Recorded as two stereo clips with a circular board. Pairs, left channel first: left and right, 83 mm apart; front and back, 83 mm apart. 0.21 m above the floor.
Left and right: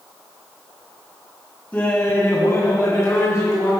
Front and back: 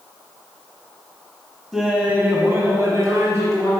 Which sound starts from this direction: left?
Laughter, at 1.7 s.